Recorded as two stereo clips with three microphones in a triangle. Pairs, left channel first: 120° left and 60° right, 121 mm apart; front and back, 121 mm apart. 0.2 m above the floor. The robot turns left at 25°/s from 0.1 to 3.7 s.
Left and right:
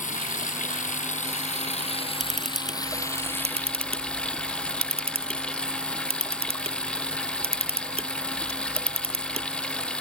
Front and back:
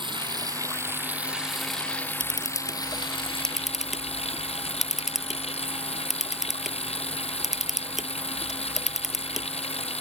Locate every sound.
0.0 s running water: 130° left; by 10.0 s 40° left
2.2 s a camera shutter: 55° right; by 9.5 s 90° right